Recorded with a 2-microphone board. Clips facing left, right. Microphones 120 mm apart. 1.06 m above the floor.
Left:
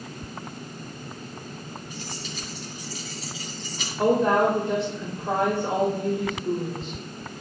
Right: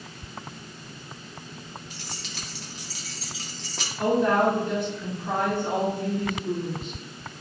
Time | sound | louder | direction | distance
1.9 | keys jangling | left 4 dB | 85° right | 1.6 m
4.0 | a woman speaking | left 1 dB | 30° left (ahead or behind) | 2.5 m